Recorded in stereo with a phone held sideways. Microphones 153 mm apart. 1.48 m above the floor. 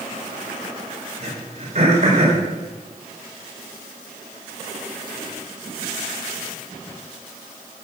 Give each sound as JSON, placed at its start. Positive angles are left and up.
{"t": 1.2, "sound": "throat clearing", "side_deg": -45, "distance_m": 5.0}